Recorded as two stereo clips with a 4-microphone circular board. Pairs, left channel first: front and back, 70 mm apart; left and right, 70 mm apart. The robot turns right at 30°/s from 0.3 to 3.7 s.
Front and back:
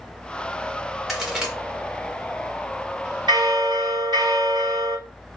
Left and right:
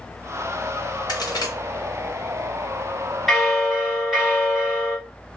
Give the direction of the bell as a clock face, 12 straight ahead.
6 o'clock.